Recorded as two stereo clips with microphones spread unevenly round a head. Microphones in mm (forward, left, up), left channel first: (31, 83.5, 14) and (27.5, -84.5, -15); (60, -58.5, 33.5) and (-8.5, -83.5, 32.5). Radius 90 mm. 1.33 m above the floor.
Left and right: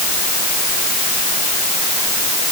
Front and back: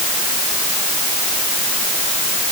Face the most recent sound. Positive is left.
No sound to turn to.